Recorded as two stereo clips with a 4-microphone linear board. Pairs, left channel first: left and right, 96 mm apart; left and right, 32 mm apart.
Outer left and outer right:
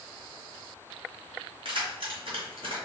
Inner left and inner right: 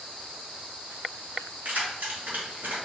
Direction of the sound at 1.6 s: 65° right (ahead or behind).